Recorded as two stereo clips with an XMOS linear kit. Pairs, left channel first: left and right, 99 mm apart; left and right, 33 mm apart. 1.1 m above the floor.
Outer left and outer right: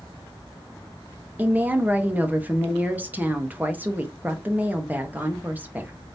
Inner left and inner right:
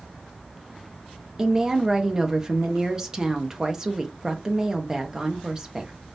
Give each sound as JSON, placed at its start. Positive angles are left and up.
{"t": 1.4, "sound": "a woman speaking", "side_deg": -20, "distance_m": 0.9}